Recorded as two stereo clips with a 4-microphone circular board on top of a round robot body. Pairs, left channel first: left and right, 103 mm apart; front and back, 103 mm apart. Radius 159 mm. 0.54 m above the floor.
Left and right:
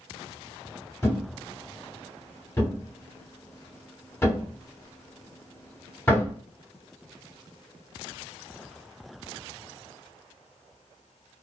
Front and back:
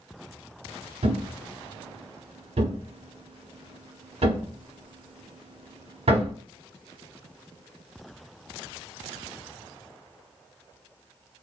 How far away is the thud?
About 1.1 m.